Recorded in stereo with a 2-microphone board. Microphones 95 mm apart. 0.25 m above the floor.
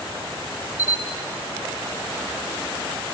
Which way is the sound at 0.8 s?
35° left (ahead or behind).